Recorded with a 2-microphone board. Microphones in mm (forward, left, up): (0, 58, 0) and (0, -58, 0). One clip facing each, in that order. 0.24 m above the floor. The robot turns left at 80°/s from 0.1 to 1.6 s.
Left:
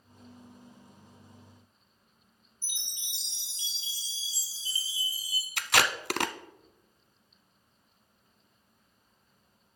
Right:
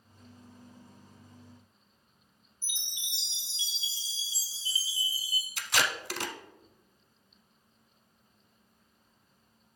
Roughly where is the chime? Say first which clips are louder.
Right 2 dB; left.